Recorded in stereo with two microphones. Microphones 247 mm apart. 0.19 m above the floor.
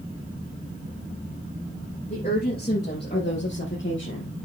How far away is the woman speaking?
About 6 m.